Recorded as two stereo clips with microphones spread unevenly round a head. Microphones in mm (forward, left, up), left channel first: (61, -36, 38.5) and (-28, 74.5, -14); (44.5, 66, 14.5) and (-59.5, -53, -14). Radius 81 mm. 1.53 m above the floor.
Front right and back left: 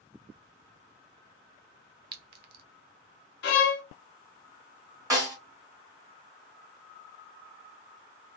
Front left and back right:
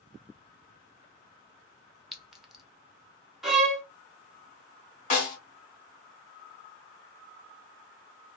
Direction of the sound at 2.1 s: 130° left.